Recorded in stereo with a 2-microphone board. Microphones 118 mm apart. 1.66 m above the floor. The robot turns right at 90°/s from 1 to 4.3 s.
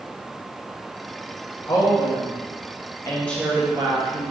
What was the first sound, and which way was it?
A woman speaking, 25° left.